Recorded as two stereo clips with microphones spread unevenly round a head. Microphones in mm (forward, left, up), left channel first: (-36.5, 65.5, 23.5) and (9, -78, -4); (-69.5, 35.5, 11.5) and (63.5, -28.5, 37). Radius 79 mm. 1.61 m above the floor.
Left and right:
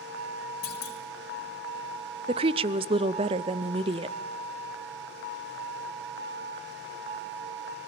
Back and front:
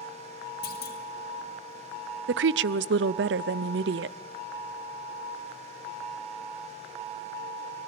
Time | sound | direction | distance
0.6 | a clunk | 130° left | 3.5 m
2.3 | a woman speaking | 15° right | 0.5 m